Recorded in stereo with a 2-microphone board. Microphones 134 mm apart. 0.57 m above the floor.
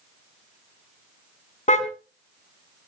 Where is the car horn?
60° left (ahead or behind), 2 m.